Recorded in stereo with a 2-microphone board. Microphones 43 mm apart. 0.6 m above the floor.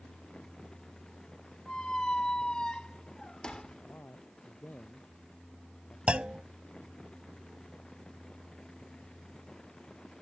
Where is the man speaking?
50° left (ahead or behind).